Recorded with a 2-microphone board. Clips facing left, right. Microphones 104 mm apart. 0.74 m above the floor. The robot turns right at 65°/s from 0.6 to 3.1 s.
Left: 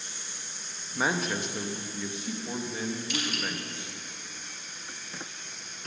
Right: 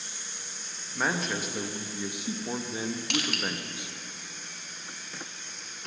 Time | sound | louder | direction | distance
0.9 | a man speaking | left 1 dB | 5° left (ahead or behind) | 0.6 m
3.1 | crushing | right 2 dB | 70° right (ahead or behind) | 1.0 m